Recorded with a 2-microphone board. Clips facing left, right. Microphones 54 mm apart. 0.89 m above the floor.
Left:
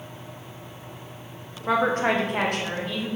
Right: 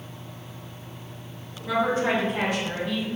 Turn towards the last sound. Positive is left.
turn(degrees=50)  # may be behind; listen again after turning